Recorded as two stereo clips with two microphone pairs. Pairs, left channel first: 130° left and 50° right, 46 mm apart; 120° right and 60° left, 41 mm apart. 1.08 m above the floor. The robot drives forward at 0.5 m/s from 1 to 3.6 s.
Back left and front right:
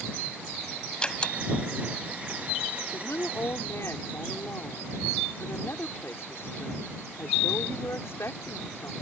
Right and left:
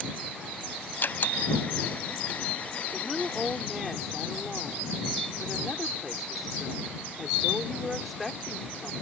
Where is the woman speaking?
145° left.